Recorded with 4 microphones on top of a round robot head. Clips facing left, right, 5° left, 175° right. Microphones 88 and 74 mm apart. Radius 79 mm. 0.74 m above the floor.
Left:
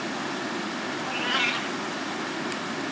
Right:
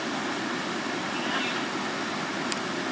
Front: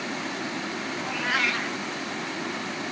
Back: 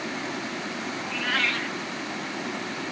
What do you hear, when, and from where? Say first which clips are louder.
1.0 s a cat meowing: left 1 dB, front 1 dB; 75° left, 0.7 m